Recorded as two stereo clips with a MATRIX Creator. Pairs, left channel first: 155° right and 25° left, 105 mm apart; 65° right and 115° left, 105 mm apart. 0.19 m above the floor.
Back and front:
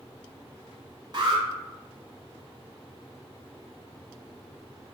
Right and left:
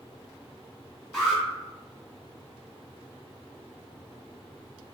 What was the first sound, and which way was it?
An alarm, 15° left.